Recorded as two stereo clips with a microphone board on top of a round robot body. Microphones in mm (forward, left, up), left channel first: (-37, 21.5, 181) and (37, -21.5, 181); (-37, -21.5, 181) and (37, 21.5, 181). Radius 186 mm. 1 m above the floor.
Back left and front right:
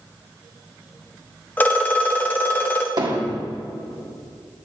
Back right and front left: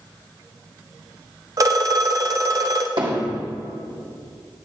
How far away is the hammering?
About 2 m.